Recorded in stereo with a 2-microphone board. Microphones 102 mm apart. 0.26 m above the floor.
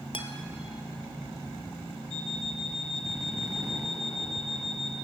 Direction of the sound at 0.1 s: 65° left (ahead or behind).